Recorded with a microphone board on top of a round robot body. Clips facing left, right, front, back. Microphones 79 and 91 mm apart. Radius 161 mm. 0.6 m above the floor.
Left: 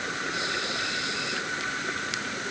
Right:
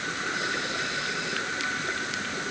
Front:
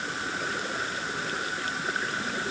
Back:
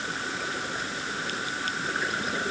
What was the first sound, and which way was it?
Only background noise.